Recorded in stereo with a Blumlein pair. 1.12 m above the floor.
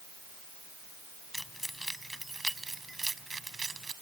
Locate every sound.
1.3 s keys jangling: straight ahead; by 3.9 s 15° right